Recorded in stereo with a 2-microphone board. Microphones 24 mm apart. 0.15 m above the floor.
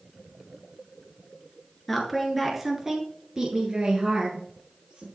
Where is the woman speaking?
5° left (ahead or behind), 2.5 m; by 5.1 s 55° right (ahead or behind), 3.5 m.